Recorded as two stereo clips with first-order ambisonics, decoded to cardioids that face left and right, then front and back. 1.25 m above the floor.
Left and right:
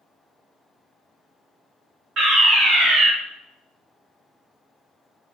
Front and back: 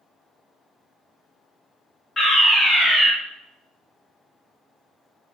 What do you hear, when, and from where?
2.2 s a fire alarm: 70° right, 1.0 m